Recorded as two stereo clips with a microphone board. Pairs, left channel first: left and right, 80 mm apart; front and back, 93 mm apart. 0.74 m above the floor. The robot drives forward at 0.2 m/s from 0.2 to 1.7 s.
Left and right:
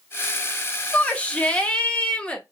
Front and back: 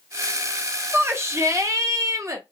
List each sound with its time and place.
0.9 s a shout: 145° left, 0.7 m; by 2.4 s 155° left, 0.7 m